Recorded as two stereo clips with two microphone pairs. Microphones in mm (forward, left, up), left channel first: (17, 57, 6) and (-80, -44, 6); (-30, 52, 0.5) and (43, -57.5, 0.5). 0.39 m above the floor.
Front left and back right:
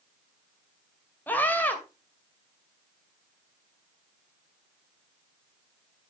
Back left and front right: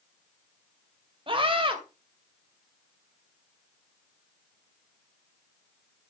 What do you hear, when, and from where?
1.3 s a scream: 25° right, 2 m